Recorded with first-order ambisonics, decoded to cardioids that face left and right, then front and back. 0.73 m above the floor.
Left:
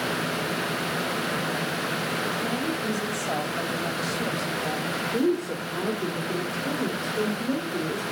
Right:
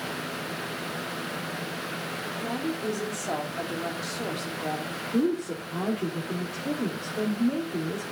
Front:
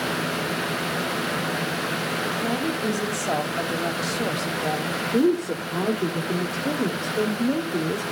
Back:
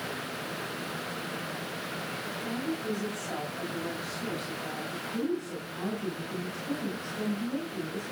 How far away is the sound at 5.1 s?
About 1.5 m.